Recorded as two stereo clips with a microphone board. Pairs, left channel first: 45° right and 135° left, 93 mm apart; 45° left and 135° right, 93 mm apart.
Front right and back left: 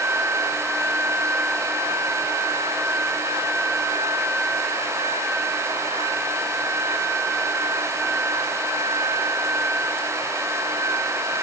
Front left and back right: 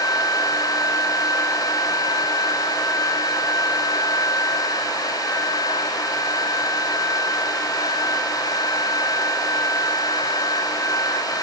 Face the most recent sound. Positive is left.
No sound to turn to.